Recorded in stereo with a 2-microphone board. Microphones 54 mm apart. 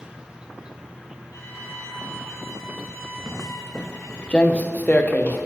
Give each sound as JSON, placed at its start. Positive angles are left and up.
{"t": 0.0, "sound": "an insect", "side_deg": -15, "distance_m": 0.8}
{"t": 1.3, "sound": "a violin", "side_deg": 70, "distance_m": 5.0}
{"t": 3.3, "sound": "footsteps", "side_deg": -20, "distance_m": 0.7}